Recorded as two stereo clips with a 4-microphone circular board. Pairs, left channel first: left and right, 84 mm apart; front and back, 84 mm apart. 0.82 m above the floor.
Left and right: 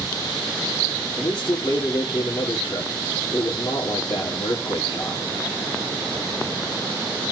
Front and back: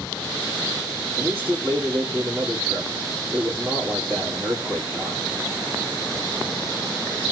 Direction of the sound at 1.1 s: 105° left.